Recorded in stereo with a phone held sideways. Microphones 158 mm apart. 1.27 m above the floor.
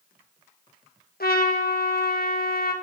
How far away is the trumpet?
About 1.2 m.